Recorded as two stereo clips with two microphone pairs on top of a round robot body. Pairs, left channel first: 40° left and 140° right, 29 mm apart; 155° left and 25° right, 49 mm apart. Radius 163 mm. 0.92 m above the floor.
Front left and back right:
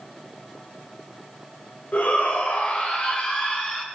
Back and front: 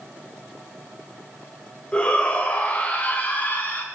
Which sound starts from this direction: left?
A shout, at 1.9 s.